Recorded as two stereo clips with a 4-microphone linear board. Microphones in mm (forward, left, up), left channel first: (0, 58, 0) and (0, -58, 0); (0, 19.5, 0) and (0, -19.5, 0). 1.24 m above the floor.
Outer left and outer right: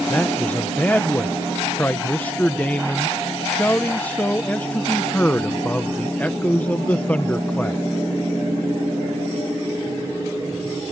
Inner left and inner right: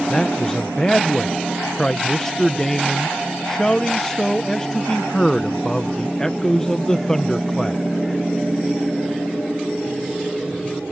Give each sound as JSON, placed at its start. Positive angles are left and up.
{"t": 0.1, "sound": "a man speaking", "side_deg": 15}